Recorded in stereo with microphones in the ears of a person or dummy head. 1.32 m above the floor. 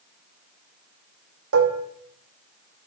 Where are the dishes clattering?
80° right, 1.6 m.